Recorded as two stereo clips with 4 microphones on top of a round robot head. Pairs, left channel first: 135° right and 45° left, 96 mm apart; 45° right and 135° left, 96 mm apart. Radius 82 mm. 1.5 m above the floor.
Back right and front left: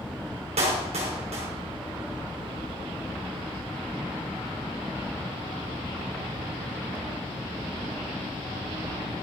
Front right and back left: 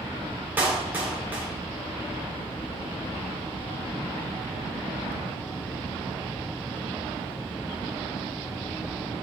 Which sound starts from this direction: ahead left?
A clap, at 0.6 s.